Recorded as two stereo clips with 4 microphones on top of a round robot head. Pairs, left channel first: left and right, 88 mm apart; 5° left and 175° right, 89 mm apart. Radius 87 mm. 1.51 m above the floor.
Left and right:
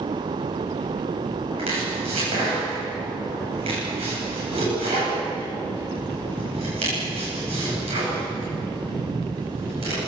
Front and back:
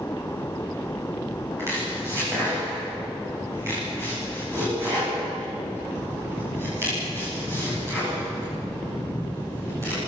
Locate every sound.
1.6 s chopping: 105° right, 9.5 m